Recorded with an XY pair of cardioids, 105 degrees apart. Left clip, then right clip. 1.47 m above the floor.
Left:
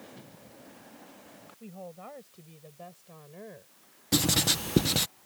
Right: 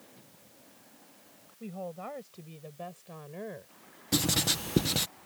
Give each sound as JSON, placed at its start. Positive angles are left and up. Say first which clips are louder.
{"t": 1.6, "sound": "a woman speaking", "louder": "right 5 dB", "azimuth_deg": -30}
{"t": 4.1, "sound": "writing", "louder": "left 2 dB", "azimuth_deg": 15}